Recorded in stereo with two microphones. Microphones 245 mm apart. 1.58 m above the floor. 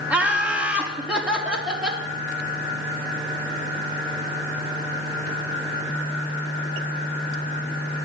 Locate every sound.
0.1 s laughter: 5° right (ahead or behind), 2 m